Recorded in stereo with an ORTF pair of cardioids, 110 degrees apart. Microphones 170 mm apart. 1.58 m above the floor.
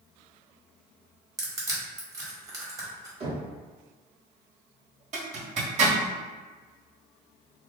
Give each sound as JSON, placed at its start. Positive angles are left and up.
{"t": 1.4, "sound": "crushing", "azimuth_deg": -20, "distance_m": 1.4}
{"t": 3.2, "sound": "knocking", "azimuth_deg": -35, "distance_m": 1.3}
{"t": 5.1, "sound": "a zipper", "azimuth_deg": -45, "distance_m": 1.5}